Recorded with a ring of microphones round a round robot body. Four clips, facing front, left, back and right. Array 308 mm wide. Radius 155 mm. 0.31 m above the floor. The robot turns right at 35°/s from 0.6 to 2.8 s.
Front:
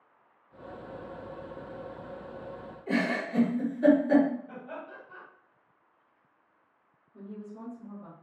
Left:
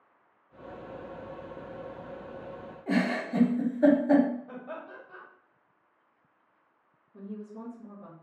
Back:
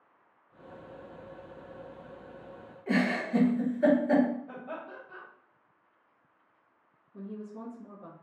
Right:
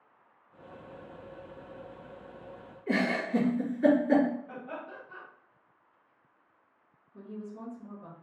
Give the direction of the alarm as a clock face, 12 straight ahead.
I don't hear an alarm.